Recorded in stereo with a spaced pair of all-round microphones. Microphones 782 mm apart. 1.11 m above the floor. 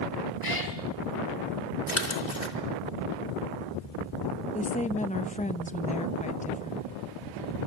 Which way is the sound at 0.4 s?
30° left (ahead or behind).